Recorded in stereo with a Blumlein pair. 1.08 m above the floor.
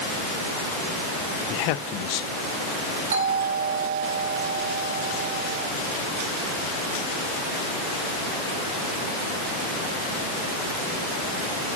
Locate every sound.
1.5 s a man speaking: 40° left, 0.7 m
3.1 s a doorbell: 60° right, 3.5 m